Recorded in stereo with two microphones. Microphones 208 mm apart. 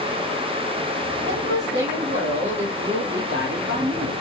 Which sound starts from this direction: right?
A woman speaking, at 1.3 s.